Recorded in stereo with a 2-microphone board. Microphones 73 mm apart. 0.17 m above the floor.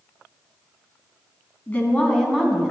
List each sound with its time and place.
1.7 s a woman speaking: 25° left (ahead or behind), 1.4 m; by 2.7 s 10° right (ahead or behind), 1.2 m